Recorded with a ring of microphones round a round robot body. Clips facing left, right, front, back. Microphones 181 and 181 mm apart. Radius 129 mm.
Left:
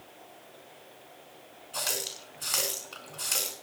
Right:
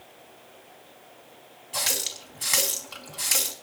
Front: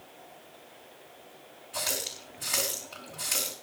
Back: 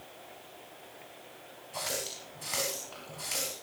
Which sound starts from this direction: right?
A running tap, at 1.7 s.